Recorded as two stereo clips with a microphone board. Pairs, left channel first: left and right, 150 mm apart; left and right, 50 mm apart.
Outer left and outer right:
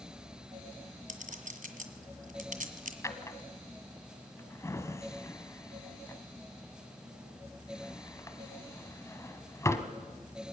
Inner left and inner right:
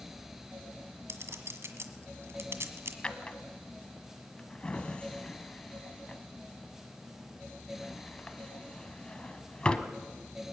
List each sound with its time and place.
1.1 s a clink: 65° right (ahead or behind), 1.8 m
3.0 s a drawer: 20° left (ahead or behind), 1.4 m